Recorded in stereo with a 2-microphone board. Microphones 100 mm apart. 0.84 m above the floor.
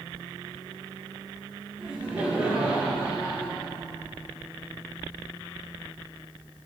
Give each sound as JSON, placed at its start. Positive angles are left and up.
{"t": 1.8, "sound": "laughter", "side_deg": -15, "distance_m": 2.0}